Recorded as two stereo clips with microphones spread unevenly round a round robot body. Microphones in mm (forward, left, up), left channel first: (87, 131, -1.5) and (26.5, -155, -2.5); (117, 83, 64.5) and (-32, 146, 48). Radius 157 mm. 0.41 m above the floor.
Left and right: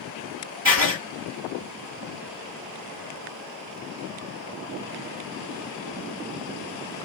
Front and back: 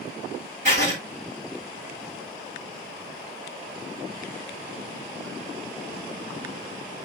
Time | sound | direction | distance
0.7 | writing | 155° right | 6.5 m